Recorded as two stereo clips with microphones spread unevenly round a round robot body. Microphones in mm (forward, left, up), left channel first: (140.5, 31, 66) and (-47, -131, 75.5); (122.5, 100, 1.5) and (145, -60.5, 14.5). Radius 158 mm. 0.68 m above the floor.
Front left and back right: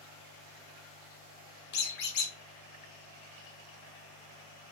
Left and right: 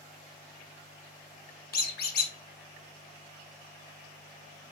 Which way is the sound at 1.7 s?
90° left.